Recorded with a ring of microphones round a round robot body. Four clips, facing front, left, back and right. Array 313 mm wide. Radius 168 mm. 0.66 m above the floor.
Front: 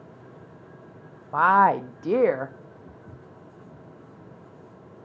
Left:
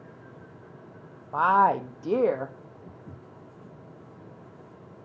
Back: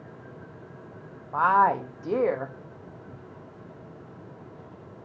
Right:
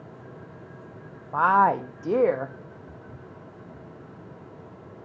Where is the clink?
I don't hear a clink.